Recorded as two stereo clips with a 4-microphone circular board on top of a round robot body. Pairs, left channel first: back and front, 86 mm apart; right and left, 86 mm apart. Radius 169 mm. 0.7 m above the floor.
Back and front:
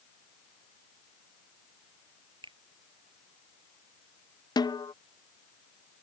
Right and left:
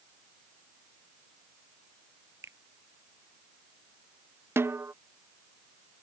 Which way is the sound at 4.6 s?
150° left.